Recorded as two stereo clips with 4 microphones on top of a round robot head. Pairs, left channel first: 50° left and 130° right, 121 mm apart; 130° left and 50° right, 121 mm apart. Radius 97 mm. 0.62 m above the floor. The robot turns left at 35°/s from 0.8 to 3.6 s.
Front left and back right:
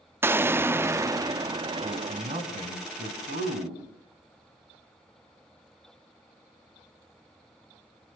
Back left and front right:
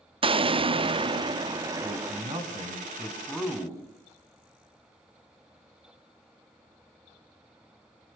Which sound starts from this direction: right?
A man speaking, at 1.8 s.